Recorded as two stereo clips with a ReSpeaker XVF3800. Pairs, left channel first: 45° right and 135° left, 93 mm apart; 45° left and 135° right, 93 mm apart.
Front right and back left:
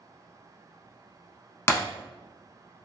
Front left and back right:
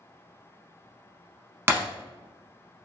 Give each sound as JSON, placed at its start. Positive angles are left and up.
{"t": 1.7, "sound": "breaking glass", "azimuth_deg": -85, "distance_m": 0.5}